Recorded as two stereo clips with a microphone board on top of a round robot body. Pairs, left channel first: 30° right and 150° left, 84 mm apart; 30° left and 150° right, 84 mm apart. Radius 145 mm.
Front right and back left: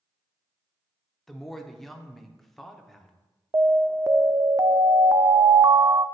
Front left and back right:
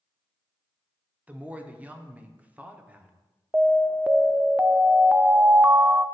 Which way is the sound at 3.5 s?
150° left.